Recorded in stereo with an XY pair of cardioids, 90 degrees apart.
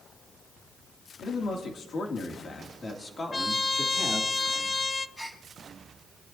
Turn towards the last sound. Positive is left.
turn(degrees=15)